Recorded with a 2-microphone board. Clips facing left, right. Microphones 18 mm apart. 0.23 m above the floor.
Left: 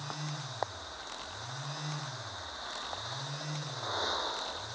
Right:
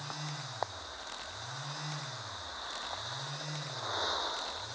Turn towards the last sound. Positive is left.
No sound to turn to.